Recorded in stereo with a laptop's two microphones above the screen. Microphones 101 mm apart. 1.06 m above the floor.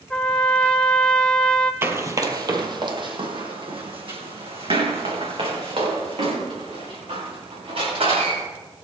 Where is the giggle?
I don't hear a giggle.